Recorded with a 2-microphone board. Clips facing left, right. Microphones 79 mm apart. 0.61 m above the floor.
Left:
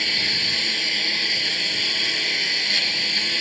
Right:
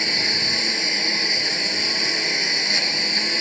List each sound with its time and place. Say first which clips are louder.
0.0 s a lawn mower: right 2 dB; 20° right (ahead or behind)